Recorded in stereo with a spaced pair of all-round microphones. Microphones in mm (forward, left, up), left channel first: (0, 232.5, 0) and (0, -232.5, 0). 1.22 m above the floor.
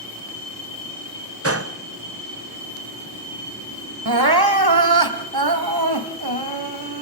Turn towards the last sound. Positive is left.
turn(degrees=-55)  # may be behind; listen again after turning